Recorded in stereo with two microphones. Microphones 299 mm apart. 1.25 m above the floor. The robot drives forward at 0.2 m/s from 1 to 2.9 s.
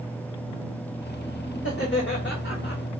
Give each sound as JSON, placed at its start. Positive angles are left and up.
{"t": 1.6, "sound": "laughter", "side_deg": 40, "distance_m": 1.8}